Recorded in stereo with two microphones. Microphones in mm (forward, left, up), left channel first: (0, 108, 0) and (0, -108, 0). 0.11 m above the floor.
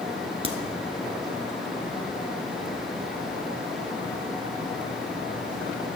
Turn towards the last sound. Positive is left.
turn(degrees=-25)  # may be behind; listen again after turning